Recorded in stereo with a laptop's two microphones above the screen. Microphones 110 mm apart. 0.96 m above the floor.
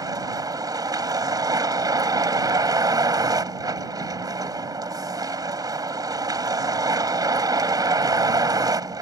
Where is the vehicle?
35° right (ahead or behind).